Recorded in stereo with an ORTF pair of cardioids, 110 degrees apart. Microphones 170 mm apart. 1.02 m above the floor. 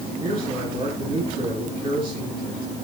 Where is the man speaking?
35° right, 9.5 m.